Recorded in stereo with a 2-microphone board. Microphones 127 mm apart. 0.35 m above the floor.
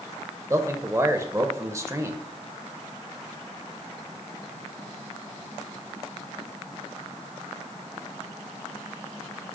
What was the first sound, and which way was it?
A man speaking, 25° right (ahead or behind).